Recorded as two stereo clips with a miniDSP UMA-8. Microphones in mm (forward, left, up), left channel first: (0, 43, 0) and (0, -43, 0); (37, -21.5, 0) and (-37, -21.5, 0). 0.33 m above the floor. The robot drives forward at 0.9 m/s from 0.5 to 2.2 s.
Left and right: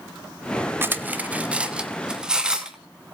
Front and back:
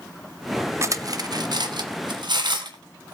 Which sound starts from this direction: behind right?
Cutlery clinking, at 0.8 s.